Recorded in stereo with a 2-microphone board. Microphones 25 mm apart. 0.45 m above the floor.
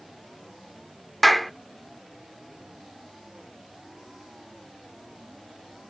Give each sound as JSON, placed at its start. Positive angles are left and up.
{"t": 1.2, "sound": "a clap", "side_deg": 5}